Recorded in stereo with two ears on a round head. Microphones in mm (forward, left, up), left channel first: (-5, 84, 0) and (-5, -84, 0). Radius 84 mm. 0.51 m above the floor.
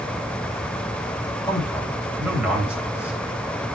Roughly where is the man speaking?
Centre.